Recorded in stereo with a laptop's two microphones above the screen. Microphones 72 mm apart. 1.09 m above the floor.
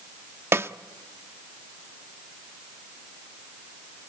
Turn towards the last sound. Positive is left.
turn(degrees=-35)  # may be behind; listen again after turning